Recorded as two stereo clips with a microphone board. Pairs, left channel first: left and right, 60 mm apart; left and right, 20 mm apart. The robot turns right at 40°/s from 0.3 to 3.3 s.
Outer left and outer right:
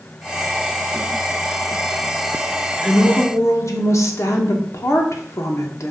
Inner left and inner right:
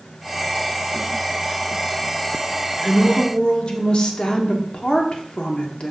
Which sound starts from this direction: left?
A woman speaking, at 2.8 s.